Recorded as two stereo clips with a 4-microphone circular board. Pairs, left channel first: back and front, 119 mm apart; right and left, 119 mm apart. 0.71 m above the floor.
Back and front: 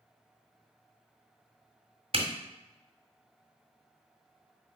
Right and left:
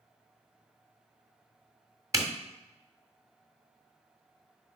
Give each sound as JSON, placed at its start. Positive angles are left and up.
{"t": 2.1, "sound": "a zipper", "azimuth_deg": 30, "distance_m": 0.6}